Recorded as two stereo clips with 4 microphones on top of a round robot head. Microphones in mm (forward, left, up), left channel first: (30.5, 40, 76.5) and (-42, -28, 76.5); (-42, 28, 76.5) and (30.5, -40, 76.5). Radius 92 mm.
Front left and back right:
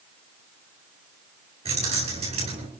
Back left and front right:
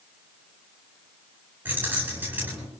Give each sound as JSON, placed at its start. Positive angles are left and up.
{"t": 1.6, "sound": "keys jangling", "azimuth_deg": -115, "distance_m": 9.5}